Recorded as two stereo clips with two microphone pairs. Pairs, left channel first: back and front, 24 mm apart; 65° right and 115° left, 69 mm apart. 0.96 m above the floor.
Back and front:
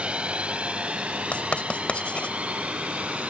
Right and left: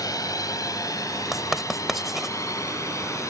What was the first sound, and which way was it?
A drone, 40° right.